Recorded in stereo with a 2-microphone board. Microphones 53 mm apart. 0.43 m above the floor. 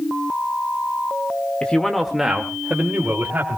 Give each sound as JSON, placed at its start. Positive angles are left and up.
{"t": 1.6, "sound": "a man speaking", "side_deg": 20, "distance_m": 1.3}